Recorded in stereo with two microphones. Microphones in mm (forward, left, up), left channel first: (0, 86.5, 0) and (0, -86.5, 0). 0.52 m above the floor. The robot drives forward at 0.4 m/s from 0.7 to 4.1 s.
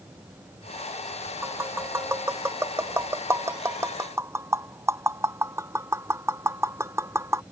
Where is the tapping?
15° right (ahead or behind).